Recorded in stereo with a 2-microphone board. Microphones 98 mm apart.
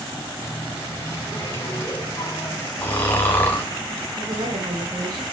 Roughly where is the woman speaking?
Right.